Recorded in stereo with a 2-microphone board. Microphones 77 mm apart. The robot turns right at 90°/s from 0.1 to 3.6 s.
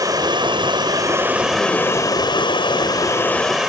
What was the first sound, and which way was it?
Running water, 125° right.